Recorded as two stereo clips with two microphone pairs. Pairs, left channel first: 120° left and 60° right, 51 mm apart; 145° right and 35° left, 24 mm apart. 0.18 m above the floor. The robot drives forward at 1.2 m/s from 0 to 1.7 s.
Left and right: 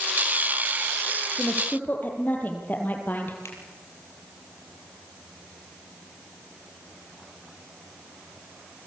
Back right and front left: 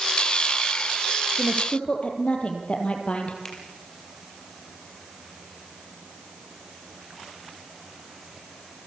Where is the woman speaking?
175° left, 4.5 m.